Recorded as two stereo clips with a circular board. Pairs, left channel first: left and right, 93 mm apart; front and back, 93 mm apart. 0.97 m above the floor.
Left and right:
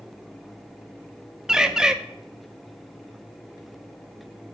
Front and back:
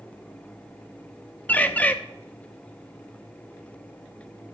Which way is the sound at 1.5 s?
20° right.